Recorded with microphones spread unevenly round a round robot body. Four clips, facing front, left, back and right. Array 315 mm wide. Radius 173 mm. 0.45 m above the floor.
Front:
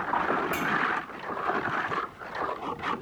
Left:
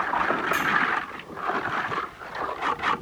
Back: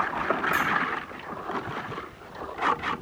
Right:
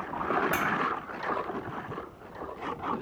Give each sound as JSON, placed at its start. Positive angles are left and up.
{"t": 0.5, "sound": "a clink", "azimuth_deg": -45, "distance_m": 1.6}